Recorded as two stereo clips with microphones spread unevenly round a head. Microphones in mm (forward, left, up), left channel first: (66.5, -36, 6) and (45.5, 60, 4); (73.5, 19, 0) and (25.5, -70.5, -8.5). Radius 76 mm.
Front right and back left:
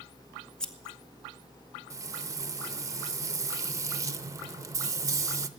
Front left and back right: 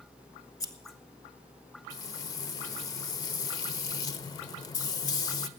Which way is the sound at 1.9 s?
60° left.